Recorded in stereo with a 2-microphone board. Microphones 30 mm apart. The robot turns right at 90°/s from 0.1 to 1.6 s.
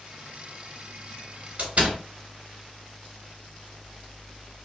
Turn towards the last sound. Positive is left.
turn(degrees=-45)  # may be behind; listen again after turning